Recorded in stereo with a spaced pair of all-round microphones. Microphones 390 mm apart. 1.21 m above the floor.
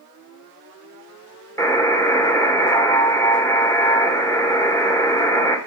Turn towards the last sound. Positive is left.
turn(degrees=10)  # may be behind; listen again after turning